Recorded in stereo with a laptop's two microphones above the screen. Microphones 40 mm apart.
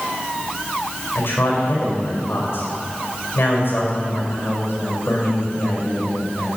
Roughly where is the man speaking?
Left.